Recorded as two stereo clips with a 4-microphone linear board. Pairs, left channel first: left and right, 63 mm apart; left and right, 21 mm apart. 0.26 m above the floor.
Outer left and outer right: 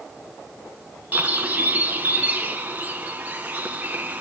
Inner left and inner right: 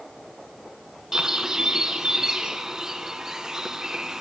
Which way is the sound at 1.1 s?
30° right (ahead or behind).